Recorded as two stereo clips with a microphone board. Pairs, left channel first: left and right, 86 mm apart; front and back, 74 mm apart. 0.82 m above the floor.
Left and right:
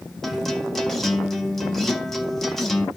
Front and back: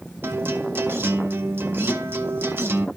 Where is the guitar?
175° left, 1.1 m.